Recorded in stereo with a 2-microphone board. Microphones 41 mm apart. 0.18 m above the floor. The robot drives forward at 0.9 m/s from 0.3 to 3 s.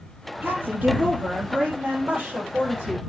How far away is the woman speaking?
About 4.5 m.